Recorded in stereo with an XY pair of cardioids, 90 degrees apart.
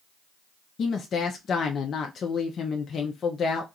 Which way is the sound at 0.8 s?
60° left.